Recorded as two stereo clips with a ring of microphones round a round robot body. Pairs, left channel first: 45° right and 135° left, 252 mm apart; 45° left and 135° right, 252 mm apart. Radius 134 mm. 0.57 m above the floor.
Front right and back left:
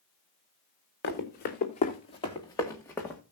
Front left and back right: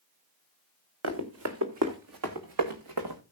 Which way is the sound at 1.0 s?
95° right.